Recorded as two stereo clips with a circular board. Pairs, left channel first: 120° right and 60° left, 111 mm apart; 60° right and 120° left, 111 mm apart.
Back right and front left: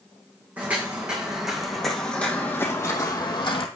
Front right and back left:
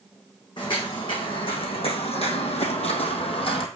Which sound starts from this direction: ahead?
Footsteps, at 0.6 s.